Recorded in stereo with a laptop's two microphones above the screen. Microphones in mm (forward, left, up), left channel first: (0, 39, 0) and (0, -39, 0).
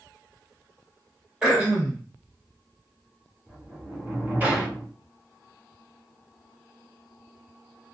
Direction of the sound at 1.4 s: 15° right (ahead or behind).